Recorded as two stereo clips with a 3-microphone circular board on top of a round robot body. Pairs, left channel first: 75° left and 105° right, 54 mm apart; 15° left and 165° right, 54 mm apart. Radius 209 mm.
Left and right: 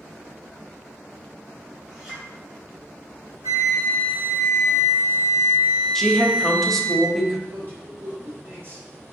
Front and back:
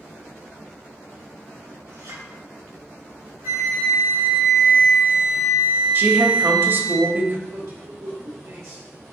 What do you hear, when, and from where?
1.9 s a clink: straight behind, 2.5 m
3.4 s a flute: 125° right, 2 m
6.0 s a woman speaking: 160° left, 1.3 m
7.5 s a man speaking: 150° right, 2.5 m